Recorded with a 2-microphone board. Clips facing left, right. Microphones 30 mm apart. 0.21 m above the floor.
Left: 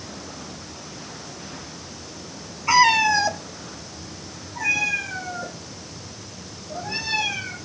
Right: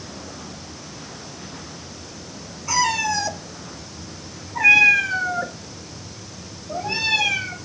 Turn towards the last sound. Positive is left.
turn(degrees=-80)